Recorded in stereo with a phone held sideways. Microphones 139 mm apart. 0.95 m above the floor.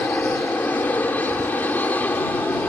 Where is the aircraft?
10° left (ahead or behind).